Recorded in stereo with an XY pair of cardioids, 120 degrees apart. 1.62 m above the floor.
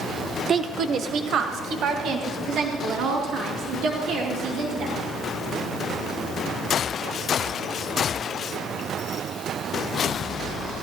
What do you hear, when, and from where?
0.5 s a woman speaking: 35° right, 0.5 m; by 5.0 s 65° right, 4.5 m